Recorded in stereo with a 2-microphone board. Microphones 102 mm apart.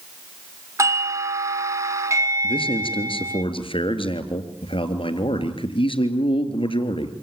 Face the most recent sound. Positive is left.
turn(degrees=60)  # may be behind; listen again after turning